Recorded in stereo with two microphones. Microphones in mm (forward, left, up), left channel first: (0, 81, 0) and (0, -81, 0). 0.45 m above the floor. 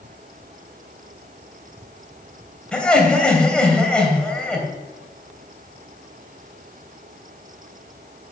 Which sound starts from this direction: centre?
Laughter, at 2.7 s.